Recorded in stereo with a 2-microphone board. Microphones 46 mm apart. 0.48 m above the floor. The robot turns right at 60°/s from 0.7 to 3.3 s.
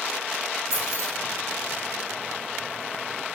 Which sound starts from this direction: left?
Keys jangling, at 0.7 s.